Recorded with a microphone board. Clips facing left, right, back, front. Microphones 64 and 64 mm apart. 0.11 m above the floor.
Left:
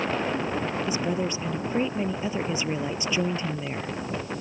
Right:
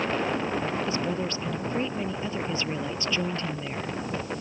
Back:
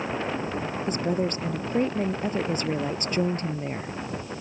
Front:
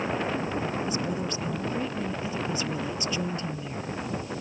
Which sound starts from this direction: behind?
A woman speaking, at 0.9 s.